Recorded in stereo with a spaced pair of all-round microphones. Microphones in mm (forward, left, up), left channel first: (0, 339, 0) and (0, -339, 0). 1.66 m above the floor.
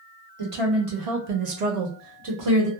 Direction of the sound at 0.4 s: 50° right (ahead or behind).